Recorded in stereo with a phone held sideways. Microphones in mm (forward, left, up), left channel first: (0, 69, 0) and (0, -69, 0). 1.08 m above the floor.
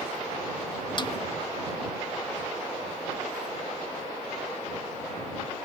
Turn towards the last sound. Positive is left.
turn(degrees=35)  # may be behind; listen again after turning